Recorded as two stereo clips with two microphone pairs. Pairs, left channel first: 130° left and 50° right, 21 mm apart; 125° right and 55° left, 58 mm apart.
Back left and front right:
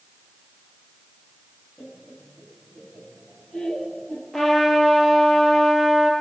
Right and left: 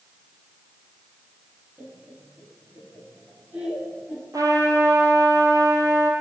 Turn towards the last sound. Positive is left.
turn(degrees=50)